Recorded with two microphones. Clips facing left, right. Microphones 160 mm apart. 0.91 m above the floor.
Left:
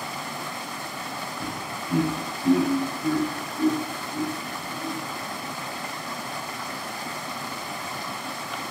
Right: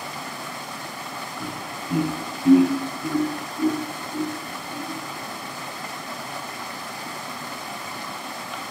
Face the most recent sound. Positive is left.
turn(degrees=-20)  # may be behind; listen again after turning